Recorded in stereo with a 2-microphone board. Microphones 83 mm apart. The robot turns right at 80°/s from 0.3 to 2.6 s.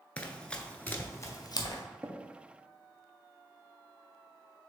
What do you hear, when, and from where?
0.2 s running footsteps: 15° left (ahead or behind), 0.6 m; by 1.8 s 50° left (ahead or behind), 1.0 m
2.0 s tapping: 30° right (ahead or behind), 0.7 m